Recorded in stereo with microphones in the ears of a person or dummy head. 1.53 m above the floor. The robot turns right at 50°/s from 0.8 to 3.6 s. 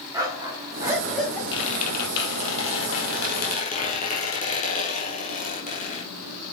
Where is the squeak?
30° left, 4.5 m; by 6.0 s 135° left, 4.5 m.